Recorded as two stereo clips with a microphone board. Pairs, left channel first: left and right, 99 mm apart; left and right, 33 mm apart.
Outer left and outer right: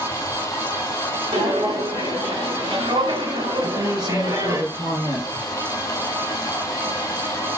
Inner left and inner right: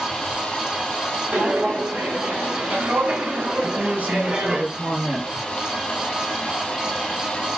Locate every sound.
0.0 s running water: 30° left (ahead or behind), 2 m
1.3 s footsteps: 80° right, 3 m; by 4.6 s 40° right (ahead or behind), 2.0 m
3.6 s a woman speaking: 60° right (ahead or behind), 2.5 m